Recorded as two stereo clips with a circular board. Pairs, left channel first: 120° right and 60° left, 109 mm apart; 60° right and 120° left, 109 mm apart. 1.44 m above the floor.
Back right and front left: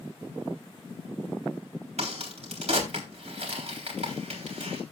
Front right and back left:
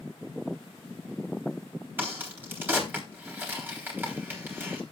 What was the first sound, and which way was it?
A crack, 50° left.